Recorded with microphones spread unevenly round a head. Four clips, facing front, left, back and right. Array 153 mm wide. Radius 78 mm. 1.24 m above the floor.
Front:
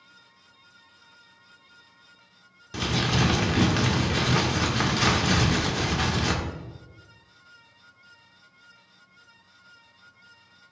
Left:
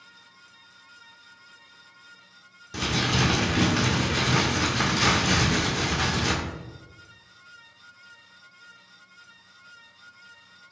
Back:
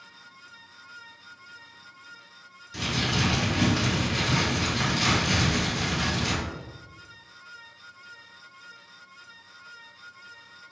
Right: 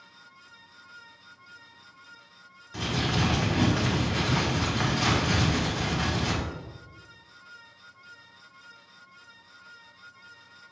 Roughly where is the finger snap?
No finger snap in this recording.